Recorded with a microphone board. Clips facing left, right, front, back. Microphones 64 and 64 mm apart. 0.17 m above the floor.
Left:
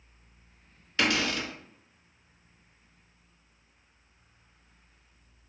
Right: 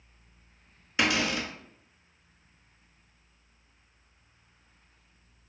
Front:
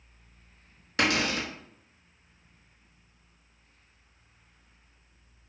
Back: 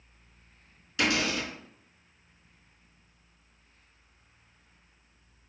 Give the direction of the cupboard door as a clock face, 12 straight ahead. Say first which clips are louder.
Even, front 1 dB; 1 o'clock.